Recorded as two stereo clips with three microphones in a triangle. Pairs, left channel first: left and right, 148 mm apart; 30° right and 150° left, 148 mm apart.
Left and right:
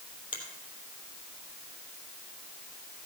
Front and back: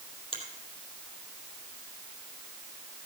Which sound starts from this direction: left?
A finger snap, at 0.3 s.